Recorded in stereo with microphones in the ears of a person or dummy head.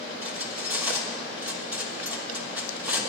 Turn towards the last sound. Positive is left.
turn(degrees=-5)  # may be behind; listen again after turning